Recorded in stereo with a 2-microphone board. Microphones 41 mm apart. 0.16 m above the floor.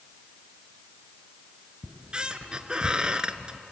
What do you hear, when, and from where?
1.8 s a squeak: 25° right (ahead or behind), 1.0 m